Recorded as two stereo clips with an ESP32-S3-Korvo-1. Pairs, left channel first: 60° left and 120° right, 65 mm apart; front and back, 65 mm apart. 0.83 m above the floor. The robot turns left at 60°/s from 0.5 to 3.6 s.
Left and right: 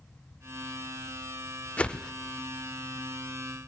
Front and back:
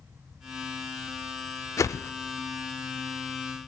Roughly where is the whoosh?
Ahead.